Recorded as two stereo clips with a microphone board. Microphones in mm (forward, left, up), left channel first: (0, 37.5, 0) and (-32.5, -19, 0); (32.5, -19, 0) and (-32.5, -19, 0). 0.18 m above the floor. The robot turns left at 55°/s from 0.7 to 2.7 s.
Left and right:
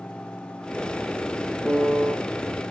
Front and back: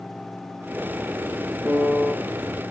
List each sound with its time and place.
1.6 s a piano: 150° left, 1.3 m; by 2.1 s 120° left, 1.3 m